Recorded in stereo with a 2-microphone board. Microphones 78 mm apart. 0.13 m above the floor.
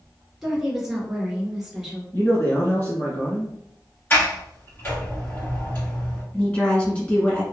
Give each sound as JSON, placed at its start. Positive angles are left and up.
{"t": 0.4, "sound": "a woman speaking", "side_deg": -5, "distance_m": 1.6}
{"t": 2.1, "sound": "a man speaking", "side_deg": 25, "distance_m": 1.3}
{"t": 4.1, "sound": "a sliding door", "side_deg": 30, "distance_m": 1.8}
{"t": 6.3, "sound": "a woman speaking", "side_deg": 15, "distance_m": 1.5}